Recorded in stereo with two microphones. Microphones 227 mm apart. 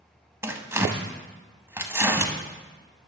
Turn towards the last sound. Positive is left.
turn(degrees=-10)  # may be behind; listen again after turning